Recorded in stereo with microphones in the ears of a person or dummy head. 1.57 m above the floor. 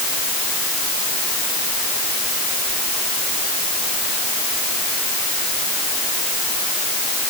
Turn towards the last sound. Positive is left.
No sound to turn to.